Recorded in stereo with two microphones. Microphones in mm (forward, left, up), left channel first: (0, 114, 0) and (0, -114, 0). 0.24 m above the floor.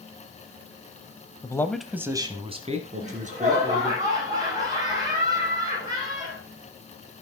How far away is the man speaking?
About 0.9 m.